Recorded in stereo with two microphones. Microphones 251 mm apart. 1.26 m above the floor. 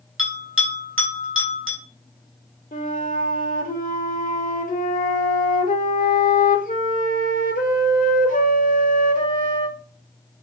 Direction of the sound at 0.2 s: 55° right (ahead or behind).